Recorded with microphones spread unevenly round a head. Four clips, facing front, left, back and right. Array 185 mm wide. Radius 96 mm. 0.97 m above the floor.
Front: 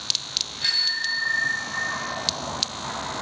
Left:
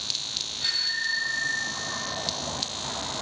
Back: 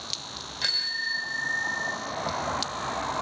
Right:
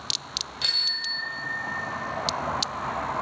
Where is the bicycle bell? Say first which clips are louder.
Left 8 dB, front 3 dB; 135° right, 3 m; by 1.9 s 125° right, 3.5 m.